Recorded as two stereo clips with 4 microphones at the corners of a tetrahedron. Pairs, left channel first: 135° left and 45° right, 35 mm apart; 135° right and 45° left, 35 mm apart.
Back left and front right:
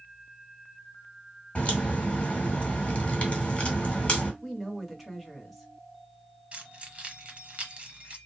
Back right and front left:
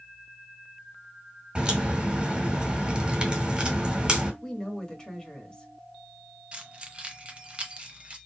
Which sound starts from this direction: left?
A crack, at 1.6 s.